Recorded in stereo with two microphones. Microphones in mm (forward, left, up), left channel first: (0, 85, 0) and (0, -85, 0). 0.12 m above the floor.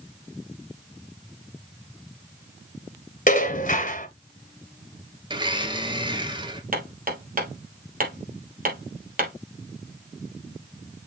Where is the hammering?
55° right (ahead or behind), 3 m.